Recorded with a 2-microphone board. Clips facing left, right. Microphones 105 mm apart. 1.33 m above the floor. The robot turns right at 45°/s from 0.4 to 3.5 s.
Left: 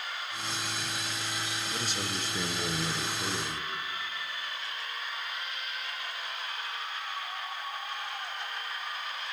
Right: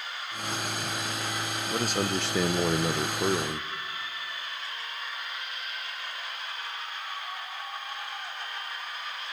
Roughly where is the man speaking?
Behind right.